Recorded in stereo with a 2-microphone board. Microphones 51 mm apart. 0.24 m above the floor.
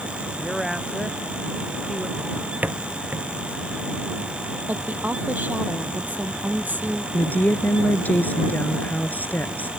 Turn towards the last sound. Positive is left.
turn(degrees=35)  # may be behind; listen again after turning